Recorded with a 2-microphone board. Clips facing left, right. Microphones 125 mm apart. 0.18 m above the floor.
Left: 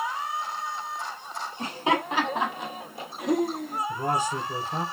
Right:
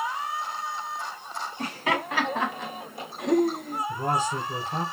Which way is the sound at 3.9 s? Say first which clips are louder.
Right 1 dB; 10° left (ahead or behind).